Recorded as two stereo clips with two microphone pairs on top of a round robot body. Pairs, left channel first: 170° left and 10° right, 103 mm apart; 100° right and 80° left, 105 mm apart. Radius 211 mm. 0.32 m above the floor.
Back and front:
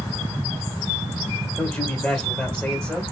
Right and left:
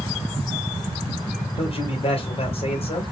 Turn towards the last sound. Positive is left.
turn(degrees=-110)